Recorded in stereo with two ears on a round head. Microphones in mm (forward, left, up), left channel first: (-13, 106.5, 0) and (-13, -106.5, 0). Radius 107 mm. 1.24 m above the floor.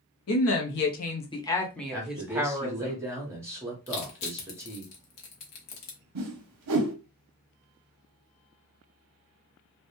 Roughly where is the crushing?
Left.